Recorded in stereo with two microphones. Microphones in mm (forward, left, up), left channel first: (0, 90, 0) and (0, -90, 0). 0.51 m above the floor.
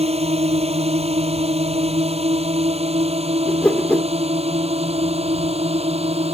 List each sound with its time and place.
0.0 s a drone: 35° right (ahead or behind)
3.5 s a whoosh: 10° left (ahead or behind)